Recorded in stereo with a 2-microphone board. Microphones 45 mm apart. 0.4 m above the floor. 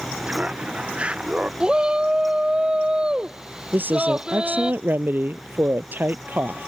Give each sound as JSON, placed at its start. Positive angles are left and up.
{"t": 0.2, "sound": "laughter", "side_deg": -30}
{"t": 1.6, "sound": "a shout", "side_deg": -20}
{"t": 3.7, "sound": "a woman speaking", "side_deg": -55}